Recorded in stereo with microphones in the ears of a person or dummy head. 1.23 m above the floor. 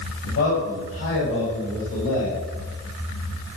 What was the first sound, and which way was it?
A man speaking, 50° left (ahead or behind).